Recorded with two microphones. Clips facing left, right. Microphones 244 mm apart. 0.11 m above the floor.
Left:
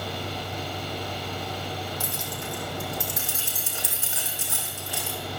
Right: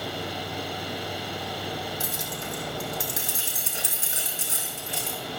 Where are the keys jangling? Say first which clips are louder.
Even; 20° right (ahead or behind), 3 m.